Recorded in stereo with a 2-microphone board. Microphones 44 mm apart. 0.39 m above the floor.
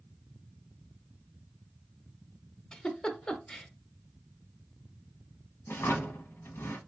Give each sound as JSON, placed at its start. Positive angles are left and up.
{"t": 2.7, "sound": "a giggle", "side_deg": 20, "distance_m": 0.7}
{"t": 5.7, "sound": "a drawer", "side_deg": 65, "distance_m": 0.8}